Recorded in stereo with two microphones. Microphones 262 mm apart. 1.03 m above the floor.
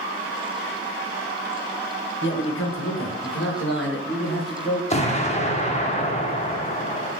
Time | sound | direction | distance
2.2 | a man speaking | 45° left (ahead or behind) | 0.5 m
4.9 | an explosion | 25° left (ahead or behind) | 0.6 m